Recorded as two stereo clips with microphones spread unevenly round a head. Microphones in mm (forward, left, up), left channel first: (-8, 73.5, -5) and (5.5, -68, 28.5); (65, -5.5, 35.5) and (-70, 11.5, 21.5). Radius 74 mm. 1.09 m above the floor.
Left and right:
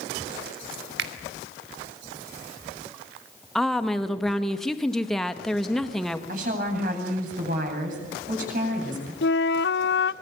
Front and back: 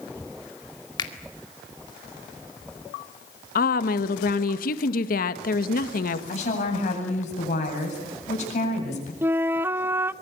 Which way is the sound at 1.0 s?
70° right.